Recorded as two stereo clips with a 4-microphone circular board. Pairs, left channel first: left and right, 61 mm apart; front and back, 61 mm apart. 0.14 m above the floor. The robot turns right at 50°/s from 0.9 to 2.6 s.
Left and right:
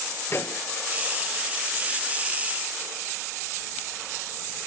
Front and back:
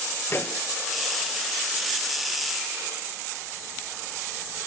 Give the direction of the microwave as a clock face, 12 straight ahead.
10 o'clock.